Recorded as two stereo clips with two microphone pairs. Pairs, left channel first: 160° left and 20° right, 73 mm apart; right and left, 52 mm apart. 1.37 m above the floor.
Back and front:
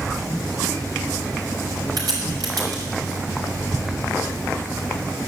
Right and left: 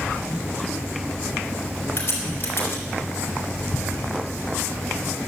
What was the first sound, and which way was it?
A crack, 45° right.